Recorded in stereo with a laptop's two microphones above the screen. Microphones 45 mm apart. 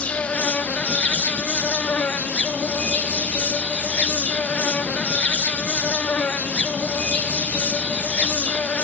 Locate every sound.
0.0 s an insect: 35° left (ahead or behind), 0.9 m